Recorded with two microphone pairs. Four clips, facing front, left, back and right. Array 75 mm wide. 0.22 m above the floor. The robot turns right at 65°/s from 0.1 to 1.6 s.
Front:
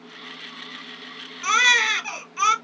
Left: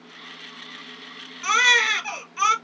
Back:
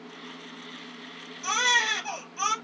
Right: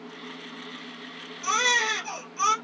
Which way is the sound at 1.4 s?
30° left.